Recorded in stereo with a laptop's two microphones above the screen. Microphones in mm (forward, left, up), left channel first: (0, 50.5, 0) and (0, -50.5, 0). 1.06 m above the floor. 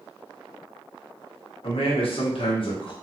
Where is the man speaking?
65° left (ahead or behind), 1.3 m; by 2.9 s 55° left (ahead or behind), 0.9 m.